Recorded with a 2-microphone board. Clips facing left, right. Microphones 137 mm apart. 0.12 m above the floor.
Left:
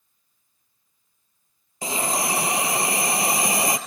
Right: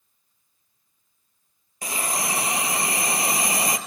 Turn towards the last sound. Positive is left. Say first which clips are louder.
# left 3 dB
turn(degrees=25)  # may be behind; listen again after turning